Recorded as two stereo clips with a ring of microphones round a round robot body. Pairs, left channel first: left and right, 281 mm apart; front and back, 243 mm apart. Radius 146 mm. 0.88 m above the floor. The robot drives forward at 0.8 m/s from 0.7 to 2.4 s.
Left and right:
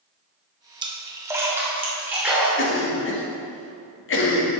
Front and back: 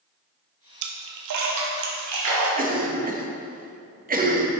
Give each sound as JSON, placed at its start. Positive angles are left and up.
{"t": 0.8, "sound": "a splash", "azimuth_deg": -165, "distance_m": 0.6}
{"t": 2.6, "sound": "a cough", "azimuth_deg": 130, "distance_m": 1.4}